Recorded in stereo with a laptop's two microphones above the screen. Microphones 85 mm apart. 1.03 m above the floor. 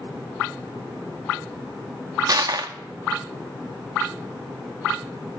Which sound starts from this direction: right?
Crushing, at 2.3 s.